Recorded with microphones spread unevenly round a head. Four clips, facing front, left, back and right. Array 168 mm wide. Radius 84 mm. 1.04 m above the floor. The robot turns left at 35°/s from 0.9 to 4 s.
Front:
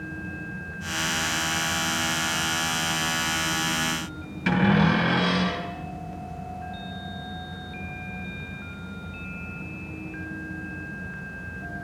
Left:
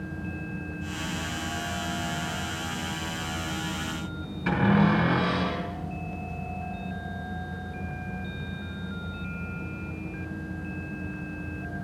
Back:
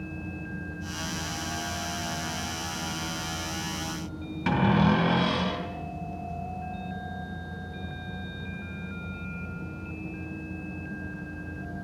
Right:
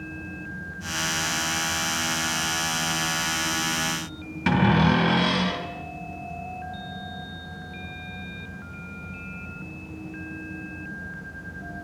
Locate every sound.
4.5 s a cupboard door: 90° right, 3 m